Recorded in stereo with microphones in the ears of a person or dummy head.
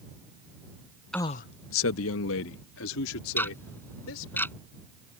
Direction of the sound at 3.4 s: 15° left (ahead or behind).